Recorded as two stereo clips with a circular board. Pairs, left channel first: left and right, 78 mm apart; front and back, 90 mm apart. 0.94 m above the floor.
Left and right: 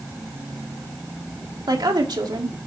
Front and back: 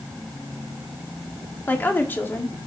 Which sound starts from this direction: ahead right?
A woman speaking, at 1.7 s.